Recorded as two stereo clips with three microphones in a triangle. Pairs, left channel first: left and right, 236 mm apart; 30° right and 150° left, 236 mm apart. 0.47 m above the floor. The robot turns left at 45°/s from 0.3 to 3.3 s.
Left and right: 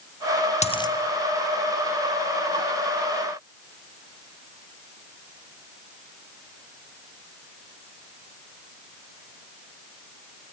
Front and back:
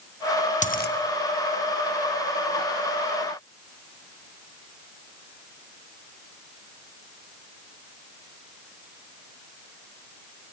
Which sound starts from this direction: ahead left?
A dropped coin, at 0.6 s.